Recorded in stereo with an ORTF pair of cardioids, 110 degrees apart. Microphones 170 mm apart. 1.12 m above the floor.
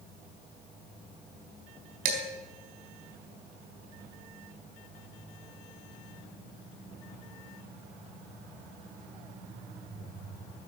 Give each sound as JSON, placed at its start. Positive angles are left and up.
{"t": 2.0, "sound": "dishes clattering", "azimuth_deg": -65, "distance_m": 3.5}